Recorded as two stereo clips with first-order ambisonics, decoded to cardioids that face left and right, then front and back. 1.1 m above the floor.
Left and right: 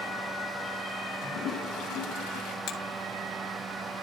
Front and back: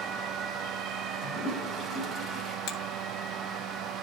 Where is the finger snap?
45° left, 2.5 m.